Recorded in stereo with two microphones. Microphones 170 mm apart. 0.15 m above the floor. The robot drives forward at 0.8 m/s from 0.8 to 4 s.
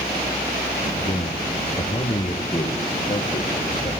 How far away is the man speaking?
About 3 m.